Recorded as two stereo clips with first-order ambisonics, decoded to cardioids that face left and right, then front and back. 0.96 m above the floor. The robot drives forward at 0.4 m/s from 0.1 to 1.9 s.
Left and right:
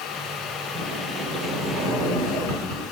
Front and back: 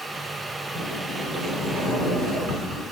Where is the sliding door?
125° right, 2.5 m; by 2.8 s 135° right, 3 m.